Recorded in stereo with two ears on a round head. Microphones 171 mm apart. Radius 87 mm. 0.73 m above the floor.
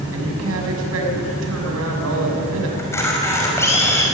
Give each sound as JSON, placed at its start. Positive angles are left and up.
{"t": 0.1, "sound": "a woman speaking", "side_deg": -85, "distance_m": 6.0}
{"t": 2.8, "sound": "a camera shutter", "side_deg": 15, "distance_m": 5.0}